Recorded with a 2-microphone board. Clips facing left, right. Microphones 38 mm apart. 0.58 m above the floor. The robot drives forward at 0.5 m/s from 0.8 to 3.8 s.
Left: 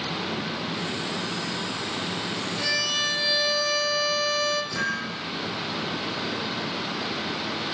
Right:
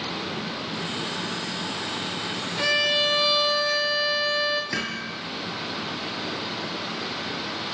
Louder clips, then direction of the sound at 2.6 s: Right 5 dB; 35° right (ahead or behind).